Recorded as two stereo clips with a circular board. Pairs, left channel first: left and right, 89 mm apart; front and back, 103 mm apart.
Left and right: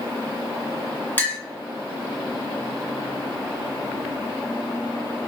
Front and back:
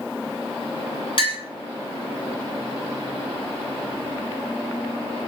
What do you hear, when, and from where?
1.2 s a clink: 25° left, 1.6 m